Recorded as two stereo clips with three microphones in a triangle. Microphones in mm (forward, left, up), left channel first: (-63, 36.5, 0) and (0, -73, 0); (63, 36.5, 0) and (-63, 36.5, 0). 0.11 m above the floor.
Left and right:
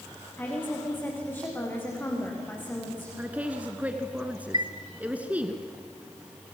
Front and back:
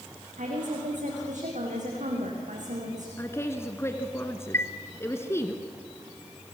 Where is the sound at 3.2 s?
5° right, 1.7 m.